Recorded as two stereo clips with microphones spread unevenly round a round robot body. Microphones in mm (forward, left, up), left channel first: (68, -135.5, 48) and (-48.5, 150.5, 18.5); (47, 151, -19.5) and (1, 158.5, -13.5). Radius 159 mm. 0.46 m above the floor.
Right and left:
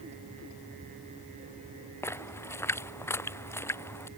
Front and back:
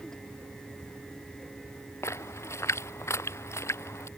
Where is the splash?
15° left.